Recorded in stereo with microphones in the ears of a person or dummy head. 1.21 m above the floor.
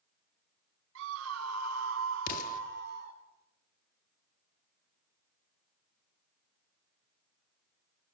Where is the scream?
70° right (ahead or behind), 1.7 m; by 3.2 s 50° right (ahead or behind), 3 m.